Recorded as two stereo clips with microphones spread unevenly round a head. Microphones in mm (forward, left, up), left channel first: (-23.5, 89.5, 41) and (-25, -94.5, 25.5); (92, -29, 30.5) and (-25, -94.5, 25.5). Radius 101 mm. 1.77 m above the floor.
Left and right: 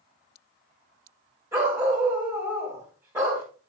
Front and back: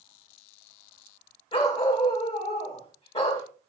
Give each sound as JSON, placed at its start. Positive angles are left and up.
{"t": 1.5, "sound": "a dog barking", "azimuth_deg": -10, "distance_m": 4.0}